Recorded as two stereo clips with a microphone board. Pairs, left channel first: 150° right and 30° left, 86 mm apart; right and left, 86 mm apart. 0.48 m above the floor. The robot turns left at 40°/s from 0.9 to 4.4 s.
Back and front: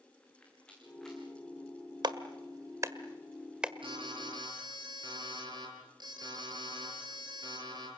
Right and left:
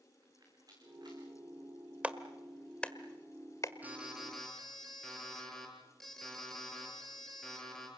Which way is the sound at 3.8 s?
20° left.